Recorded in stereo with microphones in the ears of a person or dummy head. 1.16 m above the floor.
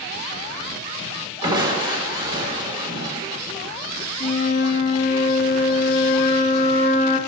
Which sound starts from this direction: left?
A flute, at 4.2 s.